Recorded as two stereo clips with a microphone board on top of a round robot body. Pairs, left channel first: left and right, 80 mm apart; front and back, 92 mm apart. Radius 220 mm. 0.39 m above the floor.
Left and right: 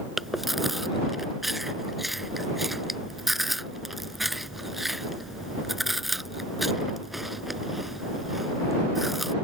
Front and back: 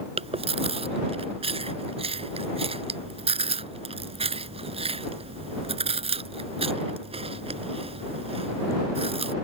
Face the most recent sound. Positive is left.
turn(degrees=180)